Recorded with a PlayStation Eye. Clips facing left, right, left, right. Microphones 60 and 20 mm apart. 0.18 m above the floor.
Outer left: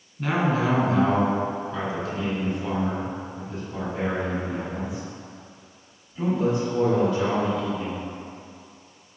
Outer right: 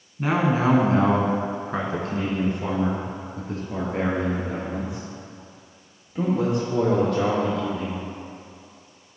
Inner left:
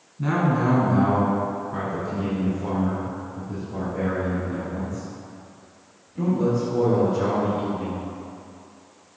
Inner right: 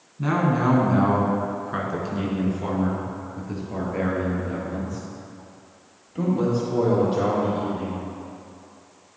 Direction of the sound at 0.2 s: 15° right (ahead or behind).